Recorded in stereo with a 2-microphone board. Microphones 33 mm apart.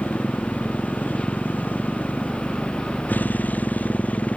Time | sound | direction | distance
0.0 | a motorcycle | 80° left | ?